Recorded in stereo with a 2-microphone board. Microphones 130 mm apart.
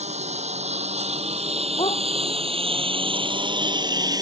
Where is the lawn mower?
60° right (ahead or behind); by 4.2 s 30° right (ahead or behind).